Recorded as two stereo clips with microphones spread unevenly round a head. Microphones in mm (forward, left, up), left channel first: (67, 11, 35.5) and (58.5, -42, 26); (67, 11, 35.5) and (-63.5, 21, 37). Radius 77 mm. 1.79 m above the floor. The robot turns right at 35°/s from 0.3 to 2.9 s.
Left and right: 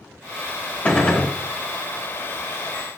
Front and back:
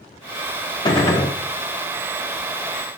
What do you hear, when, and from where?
0.8 s a gunshot: 40° left, 1.0 m; by 1.3 s 60° left, 1.0 m